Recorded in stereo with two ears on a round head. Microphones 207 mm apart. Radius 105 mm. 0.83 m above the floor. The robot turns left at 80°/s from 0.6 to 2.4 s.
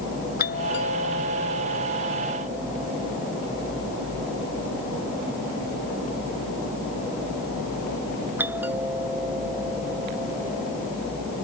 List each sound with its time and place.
0.4 s a doorbell: 45° left (ahead or behind); by 10.9 s 10° right (ahead or behind)